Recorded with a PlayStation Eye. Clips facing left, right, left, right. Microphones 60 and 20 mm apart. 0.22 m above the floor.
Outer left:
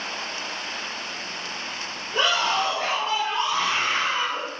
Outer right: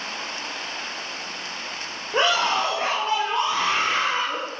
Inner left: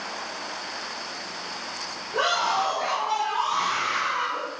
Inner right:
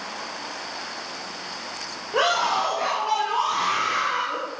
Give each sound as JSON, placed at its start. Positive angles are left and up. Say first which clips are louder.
{"t": 2.1, "sound": "a scream", "louder": "outer right 2 dB, inner right 2 dB", "side_deg": -40, "distance_m": 4.0}